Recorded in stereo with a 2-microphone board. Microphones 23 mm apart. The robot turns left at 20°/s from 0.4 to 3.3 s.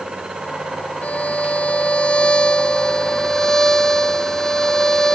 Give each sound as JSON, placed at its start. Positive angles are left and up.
{"t": 1.0, "sound": "a violin", "azimuth_deg": 70}